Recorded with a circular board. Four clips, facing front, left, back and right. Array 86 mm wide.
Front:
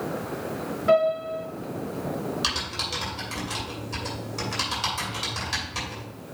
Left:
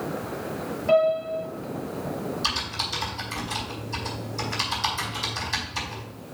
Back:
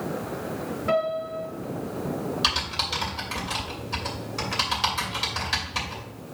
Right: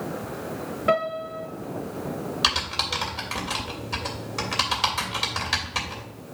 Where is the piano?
80° right, 4 m.